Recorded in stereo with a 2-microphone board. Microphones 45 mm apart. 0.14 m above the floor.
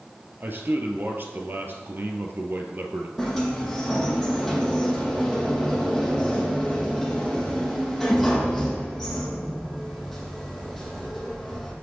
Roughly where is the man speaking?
Right.